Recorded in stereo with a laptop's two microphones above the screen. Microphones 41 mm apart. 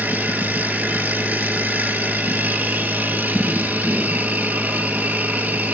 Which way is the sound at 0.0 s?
40° right (ahead or behind).